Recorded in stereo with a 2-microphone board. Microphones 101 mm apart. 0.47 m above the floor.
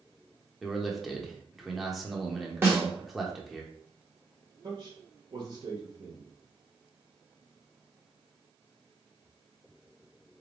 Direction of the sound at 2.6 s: 20° right (ahead or behind).